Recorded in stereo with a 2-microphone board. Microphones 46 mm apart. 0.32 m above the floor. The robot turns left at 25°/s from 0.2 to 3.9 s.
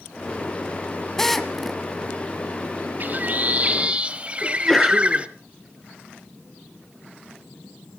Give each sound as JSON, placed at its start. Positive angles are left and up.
{"t": 1.2, "sound": "a drill", "side_deg": 10, "distance_m": 1.4}
{"t": 3.0, "sound": "a bird", "side_deg": -45, "distance_m": 1.0}
{"t": 4.4, "sound": "a sneeze", "side_deg": 10, "distance_m": 4.5}